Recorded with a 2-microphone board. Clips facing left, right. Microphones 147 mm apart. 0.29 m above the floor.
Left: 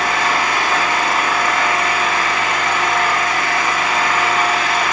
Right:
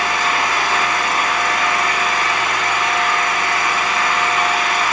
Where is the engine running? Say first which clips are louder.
Left 1 dB; 70° left (ahead or behind), 10 m.